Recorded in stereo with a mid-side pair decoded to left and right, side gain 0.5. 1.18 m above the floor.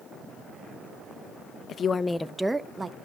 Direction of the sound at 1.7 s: 50° left.